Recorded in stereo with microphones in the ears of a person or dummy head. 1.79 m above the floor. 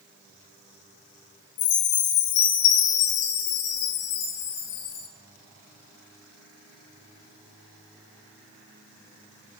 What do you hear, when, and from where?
1.6 s a chime: 65° left (ahead or behind), 3.5 m